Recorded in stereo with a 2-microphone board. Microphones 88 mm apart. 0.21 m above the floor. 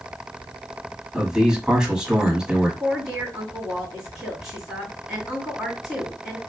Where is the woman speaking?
5° right (ahead or behind), 2 m.